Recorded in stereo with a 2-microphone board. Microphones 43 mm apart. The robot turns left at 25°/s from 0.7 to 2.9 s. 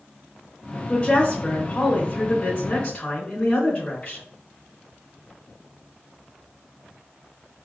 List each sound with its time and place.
0.9 s a woman speaking: 105° left, 1.0 m; by 4.2 s 55° left, 1.0 m